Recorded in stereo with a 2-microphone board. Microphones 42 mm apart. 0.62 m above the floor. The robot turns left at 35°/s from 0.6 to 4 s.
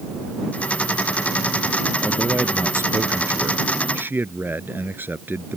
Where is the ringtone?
I don't hear a ringtone.